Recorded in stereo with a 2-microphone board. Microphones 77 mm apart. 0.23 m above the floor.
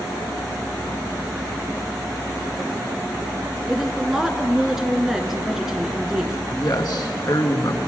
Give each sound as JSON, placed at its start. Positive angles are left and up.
{"t": 3.7, "sound": "a woman speaking", "side_deg": -5, "distance_m": 2.5}
{"t": 6.5, "sound": "a man speaking", "side_deg": 60, "distance_m": 2.5}